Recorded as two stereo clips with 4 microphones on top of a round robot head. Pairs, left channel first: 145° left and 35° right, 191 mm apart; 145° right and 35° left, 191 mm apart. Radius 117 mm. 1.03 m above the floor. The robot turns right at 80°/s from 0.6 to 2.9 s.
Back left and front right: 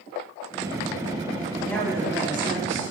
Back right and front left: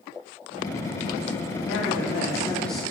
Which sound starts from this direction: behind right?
A woman speaking, at 1.6 s.